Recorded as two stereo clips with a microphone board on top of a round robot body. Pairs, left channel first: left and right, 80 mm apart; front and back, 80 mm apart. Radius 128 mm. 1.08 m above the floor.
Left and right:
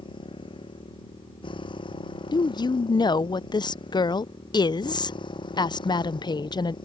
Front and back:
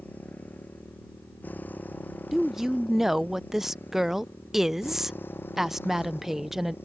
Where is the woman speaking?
95° left.